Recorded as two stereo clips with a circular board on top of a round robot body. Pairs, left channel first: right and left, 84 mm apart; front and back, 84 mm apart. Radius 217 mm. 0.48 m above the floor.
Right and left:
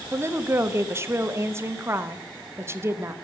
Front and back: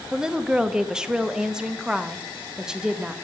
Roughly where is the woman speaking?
Left.